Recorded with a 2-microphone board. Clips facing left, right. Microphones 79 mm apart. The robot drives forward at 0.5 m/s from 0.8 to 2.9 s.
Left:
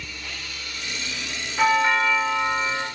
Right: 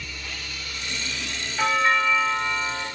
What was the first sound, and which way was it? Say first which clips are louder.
A doorbell: left 2 dB; 65° left (ahead or behind).